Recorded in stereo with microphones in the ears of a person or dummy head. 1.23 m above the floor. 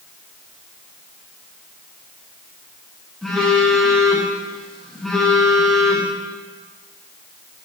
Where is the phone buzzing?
Centre (ahead or behind), 1.0 m.